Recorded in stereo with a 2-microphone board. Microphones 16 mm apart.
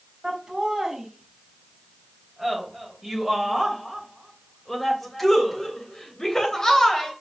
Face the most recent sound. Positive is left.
turn(degrees=25)  # may be behind; listen again after turning